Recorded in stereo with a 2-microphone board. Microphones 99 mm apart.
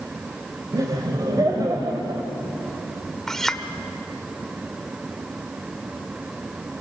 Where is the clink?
5° left (ahead or behind), 1.1 m.